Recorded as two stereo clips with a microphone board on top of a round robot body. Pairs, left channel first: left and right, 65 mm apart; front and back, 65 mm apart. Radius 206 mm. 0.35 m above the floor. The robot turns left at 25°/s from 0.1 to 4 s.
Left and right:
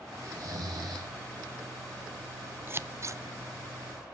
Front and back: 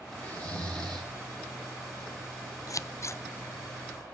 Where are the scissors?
35° right, 0.6 m; by 3.2 s 50° right, 0.6 m.